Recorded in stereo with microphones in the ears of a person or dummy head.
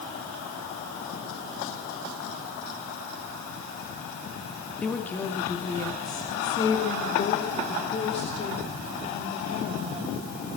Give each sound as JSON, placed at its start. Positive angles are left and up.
{"t": 4.8, "sound": "a woman speaking", "side_deg": 0, "distance_m": 2.0}